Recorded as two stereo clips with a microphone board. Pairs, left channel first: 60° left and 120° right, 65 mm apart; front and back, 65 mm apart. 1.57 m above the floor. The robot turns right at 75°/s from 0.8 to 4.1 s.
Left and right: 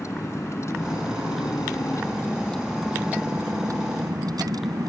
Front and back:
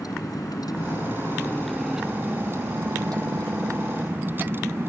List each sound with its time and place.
0.0 s a vehicle: 20° left; by 4.9 s 125° right